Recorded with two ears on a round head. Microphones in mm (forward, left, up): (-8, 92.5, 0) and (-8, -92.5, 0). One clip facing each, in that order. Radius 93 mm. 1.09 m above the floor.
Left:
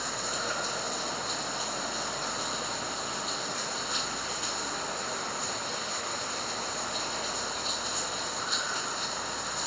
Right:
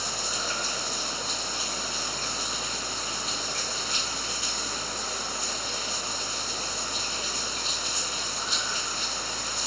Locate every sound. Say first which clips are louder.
0.0 s running water: even; 40° right (ahead or behind)